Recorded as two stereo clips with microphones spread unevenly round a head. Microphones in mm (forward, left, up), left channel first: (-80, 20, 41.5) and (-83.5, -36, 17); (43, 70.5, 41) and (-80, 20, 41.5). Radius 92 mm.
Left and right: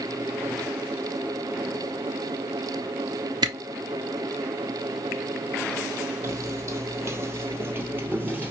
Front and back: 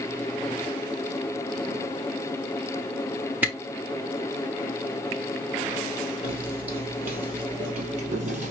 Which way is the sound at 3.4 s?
80° right.